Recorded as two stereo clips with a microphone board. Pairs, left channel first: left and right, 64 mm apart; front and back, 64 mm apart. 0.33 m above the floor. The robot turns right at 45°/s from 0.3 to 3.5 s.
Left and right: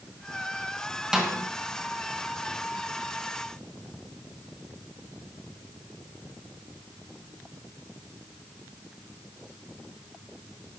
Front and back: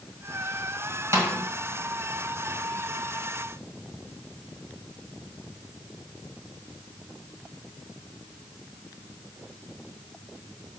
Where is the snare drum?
165° right, 1.5 m; by 1.3 s 155° right, 1.5 m.